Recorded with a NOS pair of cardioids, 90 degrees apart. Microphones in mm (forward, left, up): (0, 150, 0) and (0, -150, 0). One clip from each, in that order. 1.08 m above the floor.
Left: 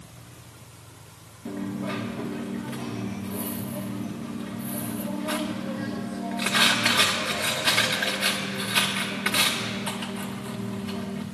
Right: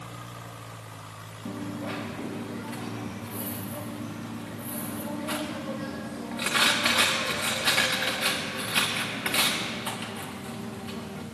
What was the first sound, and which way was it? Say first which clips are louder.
A dropped coin: left 3 dB; straight ahead.